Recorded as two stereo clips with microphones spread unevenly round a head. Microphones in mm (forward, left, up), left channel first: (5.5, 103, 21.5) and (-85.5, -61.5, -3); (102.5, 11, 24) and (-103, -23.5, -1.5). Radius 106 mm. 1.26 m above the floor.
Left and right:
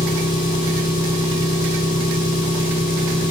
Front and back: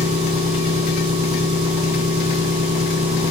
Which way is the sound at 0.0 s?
100° left.